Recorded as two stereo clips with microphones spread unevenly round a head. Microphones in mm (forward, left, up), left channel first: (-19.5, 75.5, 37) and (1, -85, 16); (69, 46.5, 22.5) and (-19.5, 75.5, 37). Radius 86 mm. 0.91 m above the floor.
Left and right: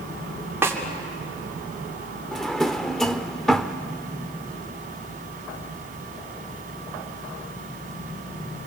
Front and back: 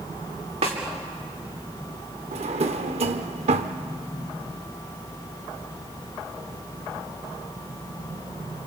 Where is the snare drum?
160° right, 3 m.